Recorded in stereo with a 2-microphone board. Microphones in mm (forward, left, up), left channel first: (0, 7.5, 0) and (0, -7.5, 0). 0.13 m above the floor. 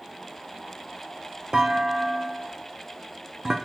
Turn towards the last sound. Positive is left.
turn(degrees=-40)  # may be behind; listen again after turning